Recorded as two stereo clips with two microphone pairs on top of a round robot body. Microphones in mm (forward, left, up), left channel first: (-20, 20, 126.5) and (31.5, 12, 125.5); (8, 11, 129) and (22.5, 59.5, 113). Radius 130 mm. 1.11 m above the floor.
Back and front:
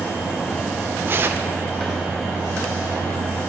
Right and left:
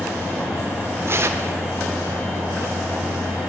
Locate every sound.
1.1 s tearing paper: 40° left, 0.6 m